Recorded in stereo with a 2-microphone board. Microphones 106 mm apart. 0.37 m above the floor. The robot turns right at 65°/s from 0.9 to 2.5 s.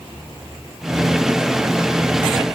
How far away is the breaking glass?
No breaking glass in this recording.